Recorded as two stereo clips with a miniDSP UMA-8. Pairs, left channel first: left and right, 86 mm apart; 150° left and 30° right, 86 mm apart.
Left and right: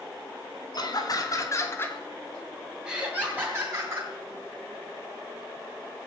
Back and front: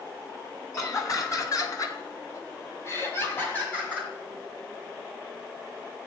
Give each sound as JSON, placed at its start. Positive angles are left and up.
{"t": 0.7, "sound": "laughter", "azimuth_deg": 110, "distance_m": 3.0}